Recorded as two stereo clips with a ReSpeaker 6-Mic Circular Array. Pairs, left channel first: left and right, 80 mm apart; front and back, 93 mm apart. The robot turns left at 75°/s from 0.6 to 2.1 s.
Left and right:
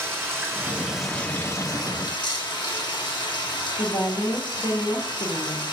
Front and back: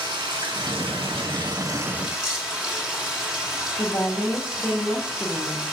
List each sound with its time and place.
0.0 s running water: 150° right, 1.0 m; by 5.7 s 100° left, 1.0 m
3.8 s a woman speaking: 85° left, 0.9 m